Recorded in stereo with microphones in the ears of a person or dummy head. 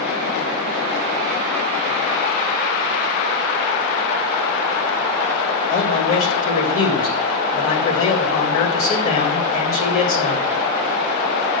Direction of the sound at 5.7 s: 45° left (ahead or behind).